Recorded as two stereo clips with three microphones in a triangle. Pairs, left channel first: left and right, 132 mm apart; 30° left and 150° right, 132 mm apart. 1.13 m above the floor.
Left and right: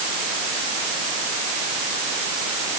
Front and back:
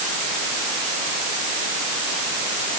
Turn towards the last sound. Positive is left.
No sound to turn to.